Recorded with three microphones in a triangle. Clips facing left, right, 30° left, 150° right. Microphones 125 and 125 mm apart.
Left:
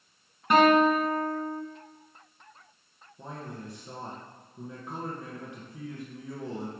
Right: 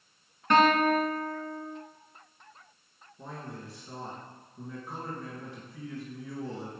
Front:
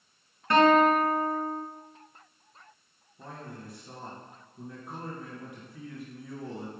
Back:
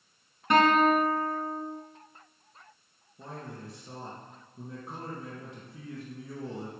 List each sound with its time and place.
0.5 s a guitar: 160° left, 1.7 m
3.2 s a man speaking: 155° left, 1.9 m